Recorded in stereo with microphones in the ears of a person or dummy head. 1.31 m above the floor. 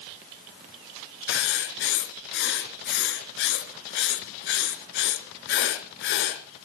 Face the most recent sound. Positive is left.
turn(degrees=60)  # may be behind; listen again after turning